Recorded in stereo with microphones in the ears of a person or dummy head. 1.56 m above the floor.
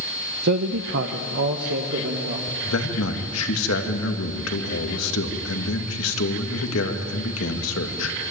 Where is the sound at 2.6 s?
85° left, 2.5 m.